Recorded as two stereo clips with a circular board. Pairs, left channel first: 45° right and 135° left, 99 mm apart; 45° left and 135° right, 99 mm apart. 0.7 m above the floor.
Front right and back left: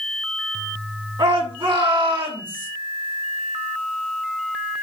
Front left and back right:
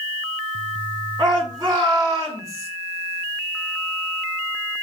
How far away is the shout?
About 8.5 m.